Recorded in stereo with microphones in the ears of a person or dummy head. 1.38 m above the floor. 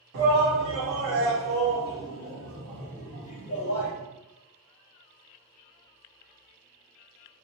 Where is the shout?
60° right (ahead or behind), 2.0 m; by 3.9 s 40° left (ahead or behind), 1.5 m.